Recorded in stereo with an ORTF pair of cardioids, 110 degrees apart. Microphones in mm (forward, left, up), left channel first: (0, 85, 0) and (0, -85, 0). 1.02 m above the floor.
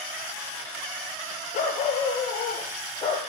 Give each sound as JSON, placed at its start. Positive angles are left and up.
{"t": 1.5, "sound": "a dog barking", "azimuth_deg": 50, "distance_m": 7.5}